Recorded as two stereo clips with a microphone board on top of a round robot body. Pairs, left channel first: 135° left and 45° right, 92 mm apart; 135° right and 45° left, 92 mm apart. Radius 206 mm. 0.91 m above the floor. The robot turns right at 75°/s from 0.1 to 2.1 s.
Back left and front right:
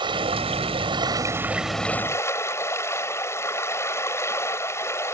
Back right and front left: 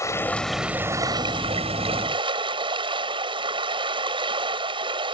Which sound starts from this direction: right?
Running water, at 0.0 s.